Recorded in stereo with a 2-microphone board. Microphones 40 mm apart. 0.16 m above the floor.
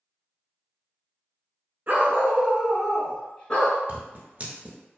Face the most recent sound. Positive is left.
turn(degrees=-35)  # may be behind; listen again after turning